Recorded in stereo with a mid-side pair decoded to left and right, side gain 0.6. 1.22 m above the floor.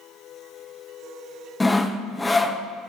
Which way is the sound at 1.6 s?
10° left.